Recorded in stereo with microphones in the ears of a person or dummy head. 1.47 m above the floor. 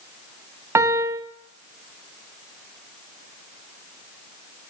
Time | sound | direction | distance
0.8 | a piano | 20° right (ahead or behind) | 1.2 m